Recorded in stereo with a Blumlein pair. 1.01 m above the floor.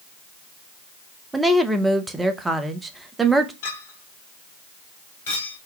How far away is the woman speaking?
About 0.6 m.